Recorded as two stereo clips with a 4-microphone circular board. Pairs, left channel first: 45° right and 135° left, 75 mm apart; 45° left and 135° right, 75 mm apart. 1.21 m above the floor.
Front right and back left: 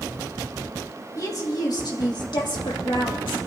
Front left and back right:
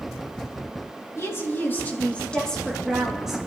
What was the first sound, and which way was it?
A woman speaking, 5° right.